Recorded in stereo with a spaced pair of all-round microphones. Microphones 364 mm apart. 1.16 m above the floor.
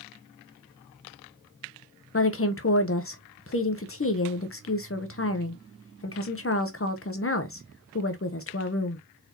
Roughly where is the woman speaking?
Left.